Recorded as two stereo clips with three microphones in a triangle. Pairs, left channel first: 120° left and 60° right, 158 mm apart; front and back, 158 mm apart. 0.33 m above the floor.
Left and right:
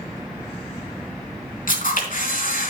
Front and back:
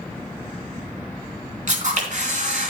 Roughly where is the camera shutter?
Behind left.